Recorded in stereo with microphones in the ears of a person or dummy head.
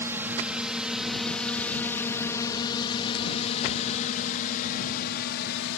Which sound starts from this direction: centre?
A drone, at 0.0 s.